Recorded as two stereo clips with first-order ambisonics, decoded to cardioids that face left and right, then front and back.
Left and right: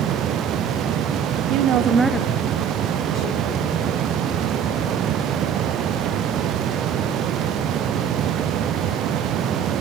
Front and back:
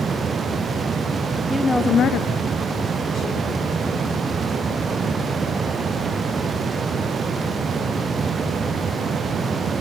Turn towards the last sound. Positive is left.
turn(degrees=55)